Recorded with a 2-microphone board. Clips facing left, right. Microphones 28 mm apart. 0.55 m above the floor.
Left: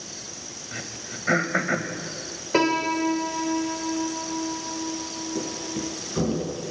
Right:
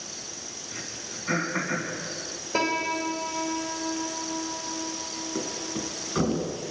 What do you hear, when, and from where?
0.7 s throat clearing: 70° left (ahead or behind), 2 m
2.5 s a piano: 50° left (ahead or behind), 1.7 m
5.3 s a thud: 25° right (ahead or behind), 3.5 m